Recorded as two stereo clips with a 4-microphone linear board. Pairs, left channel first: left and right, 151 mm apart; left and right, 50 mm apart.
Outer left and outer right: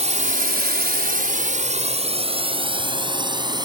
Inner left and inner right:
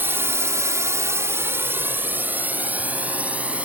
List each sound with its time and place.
0.0 s a drone: 50° right (ahead or behind); by 3.6 s 30° right (ahead or behind)